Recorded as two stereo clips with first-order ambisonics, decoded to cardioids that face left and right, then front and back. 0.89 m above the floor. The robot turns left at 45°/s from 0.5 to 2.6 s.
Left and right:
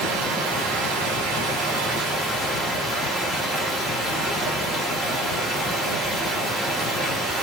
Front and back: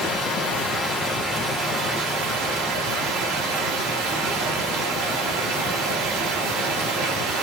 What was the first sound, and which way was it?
Running water, 65° right.